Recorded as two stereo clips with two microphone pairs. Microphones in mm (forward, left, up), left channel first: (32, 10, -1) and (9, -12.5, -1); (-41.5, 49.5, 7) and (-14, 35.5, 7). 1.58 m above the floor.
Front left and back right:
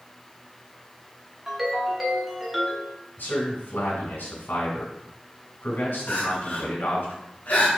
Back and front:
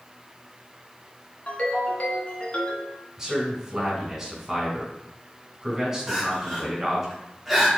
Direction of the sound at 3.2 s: 50° left.